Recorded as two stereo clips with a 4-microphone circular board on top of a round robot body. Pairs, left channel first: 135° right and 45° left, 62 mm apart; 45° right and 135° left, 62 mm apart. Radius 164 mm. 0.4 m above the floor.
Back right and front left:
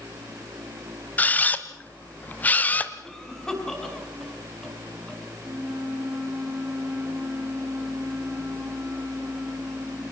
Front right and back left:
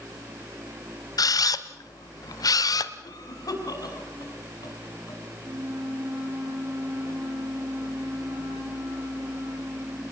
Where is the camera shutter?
70° right, 1.0 m.